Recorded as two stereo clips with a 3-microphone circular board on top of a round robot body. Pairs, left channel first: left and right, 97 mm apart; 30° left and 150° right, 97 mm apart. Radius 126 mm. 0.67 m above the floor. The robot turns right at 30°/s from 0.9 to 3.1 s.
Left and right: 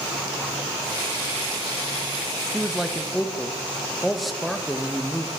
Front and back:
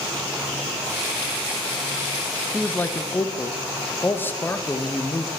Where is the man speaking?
20° right, 0.6 m; by 5.3 s straight ahead, 0.6 m.